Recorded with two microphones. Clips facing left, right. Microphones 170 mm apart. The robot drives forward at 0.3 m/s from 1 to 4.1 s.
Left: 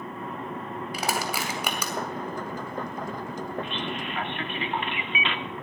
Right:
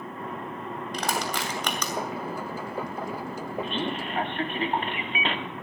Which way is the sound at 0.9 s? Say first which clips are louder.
Even; 10° left (ahead or behind).